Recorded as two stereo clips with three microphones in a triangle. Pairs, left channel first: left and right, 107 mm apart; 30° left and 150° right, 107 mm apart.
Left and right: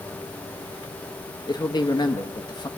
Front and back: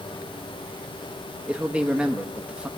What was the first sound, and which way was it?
A man speaking, 130° left.